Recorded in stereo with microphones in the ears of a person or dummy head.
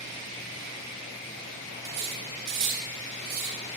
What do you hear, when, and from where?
1.8 s cutlery clinking: 65° right (ahead or behind), 2 m